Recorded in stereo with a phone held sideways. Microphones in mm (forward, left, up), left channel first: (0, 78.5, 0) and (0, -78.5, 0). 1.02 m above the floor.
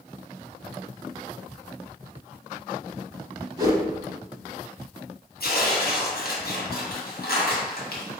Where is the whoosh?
25° right (ahead or behind), 0.9 m.